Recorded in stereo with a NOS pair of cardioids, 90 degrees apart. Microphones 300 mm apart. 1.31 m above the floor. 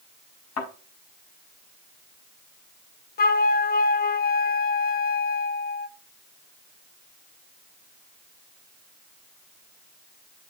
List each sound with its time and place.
0.6 s a thud: 65° left, 5 m
3.2 s a flute: 35° left, 0.6 m